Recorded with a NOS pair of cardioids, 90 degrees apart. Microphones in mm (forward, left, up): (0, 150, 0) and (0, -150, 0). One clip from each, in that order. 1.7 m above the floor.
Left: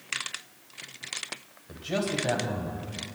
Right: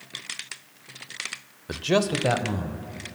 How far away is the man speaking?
About 0.8 m.